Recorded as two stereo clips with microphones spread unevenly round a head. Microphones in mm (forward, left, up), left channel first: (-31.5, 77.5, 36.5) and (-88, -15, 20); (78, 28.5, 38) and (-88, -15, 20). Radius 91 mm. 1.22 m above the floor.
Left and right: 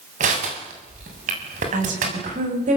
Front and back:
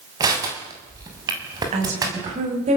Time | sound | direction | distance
0.2 | crushing | 95° right | 6.5 m
1.7 | a woman speaking | 110° right | 8 m